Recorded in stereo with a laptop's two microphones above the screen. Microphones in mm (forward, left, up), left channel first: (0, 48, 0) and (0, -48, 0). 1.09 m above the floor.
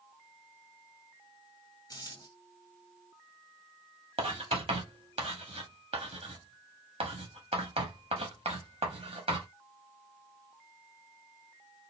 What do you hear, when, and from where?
1.9 s a dropped coin: 40° left (ahead or behind), 1.4 m
4.2 s writing: 85° right, 1.2 m